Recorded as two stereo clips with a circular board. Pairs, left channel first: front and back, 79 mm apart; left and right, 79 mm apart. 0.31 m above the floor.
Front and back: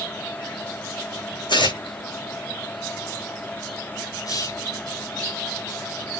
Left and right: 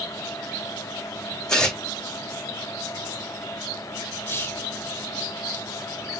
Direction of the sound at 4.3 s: 30° left.